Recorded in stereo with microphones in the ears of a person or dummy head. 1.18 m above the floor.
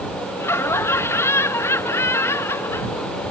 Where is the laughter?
15° left (ahead or behind).